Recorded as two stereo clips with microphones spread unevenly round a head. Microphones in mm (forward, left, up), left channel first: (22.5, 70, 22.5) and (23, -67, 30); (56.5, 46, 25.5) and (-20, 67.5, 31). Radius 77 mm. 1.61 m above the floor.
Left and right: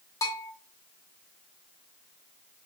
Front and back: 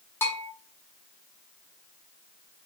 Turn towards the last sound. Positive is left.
turn(degrees=30)